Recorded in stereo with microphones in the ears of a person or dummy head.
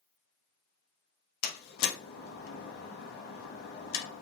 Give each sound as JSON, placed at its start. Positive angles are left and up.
{"t": 1.4, "sound": "a door slam", "side_deg": 60, "distance_m": 1.1}